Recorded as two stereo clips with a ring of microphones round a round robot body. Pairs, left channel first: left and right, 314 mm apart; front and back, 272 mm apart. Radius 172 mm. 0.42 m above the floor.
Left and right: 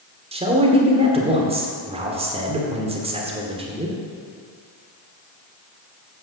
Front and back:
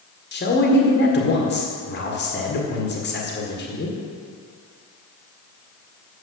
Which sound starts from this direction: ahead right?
A man speaking, at 0.3 s.